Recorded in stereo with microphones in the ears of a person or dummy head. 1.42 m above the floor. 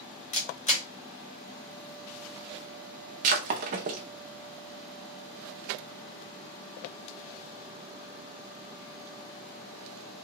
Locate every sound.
0.3 s a camera shutter: 35° left (ahead or behind), 1.0 m
3.2 s breaking glass: 30° right (ahead or behind), 0.7 m